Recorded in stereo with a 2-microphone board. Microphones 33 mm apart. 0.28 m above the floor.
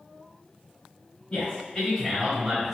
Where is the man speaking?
40° left (ahead or behind), 1.6 m; by 2.7 s 15° right (ahead or behind), 1.3 m.